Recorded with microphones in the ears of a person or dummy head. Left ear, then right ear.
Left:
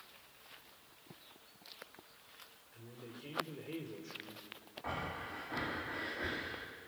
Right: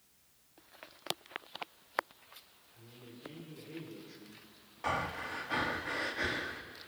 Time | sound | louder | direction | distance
2.7 | a man speaking | left 2 dB | 80° left | 3.5 m
4.8 | breathing | right 6 dB | 70° right (ahead or behind) | 1.9 m